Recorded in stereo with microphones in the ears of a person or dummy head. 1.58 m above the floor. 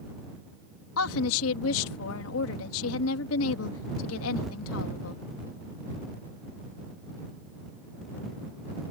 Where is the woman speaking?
85° left.